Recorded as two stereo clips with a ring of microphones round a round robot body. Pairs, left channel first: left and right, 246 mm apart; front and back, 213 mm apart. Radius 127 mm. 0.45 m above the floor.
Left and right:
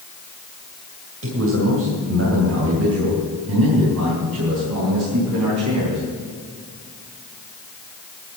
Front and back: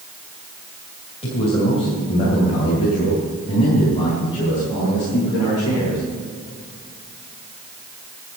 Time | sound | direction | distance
1.2 | a man speaking | 60° right | 2.5 m